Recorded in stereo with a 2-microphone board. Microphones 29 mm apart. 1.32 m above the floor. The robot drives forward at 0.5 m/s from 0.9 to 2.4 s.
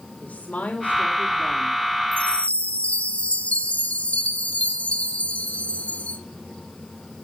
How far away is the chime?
About 2 m.